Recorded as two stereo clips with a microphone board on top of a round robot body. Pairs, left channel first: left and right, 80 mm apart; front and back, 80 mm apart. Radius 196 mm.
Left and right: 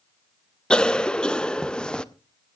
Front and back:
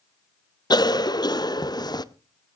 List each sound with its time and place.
0.7 s a cough: 10° left, 0.9 m